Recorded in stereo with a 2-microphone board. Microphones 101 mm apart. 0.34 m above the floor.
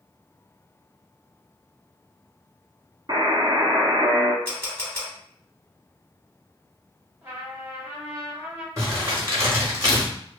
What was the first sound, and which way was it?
A buzzer, 45° right (ahead or behind).